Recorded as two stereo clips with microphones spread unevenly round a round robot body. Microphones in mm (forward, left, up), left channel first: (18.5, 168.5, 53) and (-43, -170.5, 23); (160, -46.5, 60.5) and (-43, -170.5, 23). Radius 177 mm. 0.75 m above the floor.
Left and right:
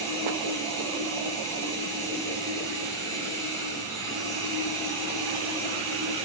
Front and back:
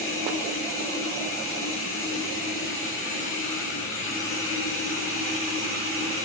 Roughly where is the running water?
Ahead.